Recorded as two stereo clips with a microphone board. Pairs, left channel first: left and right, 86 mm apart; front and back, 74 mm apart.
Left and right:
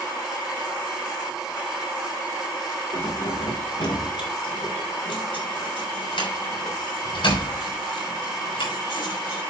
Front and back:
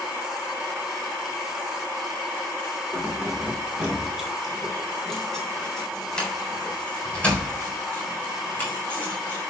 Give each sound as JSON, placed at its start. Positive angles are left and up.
{"t": 2.9, "sound": "keys jangling", "azimuth_deg": 110, "distance_m": 2.5}